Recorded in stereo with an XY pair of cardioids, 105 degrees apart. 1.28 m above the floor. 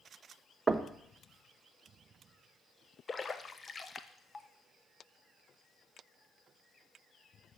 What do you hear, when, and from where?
0.7 s knocking: 25° right, 0.7 m
3.1 s a splash: 30° left, 0.7 m